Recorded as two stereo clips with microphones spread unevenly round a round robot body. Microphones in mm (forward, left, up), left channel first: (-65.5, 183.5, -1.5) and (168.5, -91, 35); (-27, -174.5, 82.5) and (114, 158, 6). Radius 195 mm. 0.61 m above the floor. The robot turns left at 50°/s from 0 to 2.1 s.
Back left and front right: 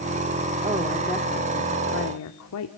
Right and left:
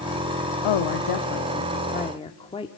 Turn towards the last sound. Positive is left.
turn(degrees=165)